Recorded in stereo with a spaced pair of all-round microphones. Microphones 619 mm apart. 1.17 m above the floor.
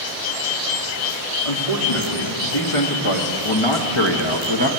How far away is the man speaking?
About 3 m.